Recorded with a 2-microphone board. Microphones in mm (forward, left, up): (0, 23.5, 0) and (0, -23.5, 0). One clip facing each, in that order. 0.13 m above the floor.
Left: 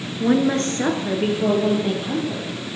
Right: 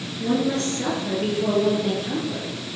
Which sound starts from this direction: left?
A woman speaking, at 0.2 s.